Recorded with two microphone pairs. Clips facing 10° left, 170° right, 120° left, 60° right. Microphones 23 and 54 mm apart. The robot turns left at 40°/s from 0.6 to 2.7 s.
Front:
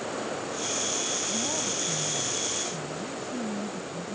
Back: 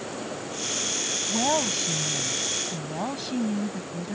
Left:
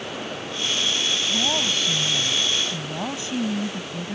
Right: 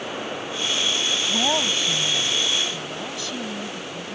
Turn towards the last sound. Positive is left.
turn(degrees=180)